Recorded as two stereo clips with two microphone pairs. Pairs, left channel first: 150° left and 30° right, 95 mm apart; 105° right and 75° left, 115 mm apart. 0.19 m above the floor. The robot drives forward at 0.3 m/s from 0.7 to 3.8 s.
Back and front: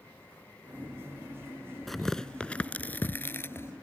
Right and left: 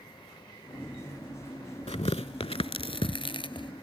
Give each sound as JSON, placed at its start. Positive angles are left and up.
{"t": 1.9, "sound": "tearing paper", "azimuth_deg": -120}